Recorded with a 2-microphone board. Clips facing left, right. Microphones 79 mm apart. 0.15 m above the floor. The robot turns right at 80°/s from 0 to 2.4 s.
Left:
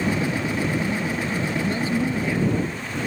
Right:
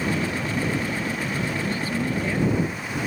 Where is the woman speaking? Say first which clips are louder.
Left 3 dB; 135° left; by 2.8 s 165° right.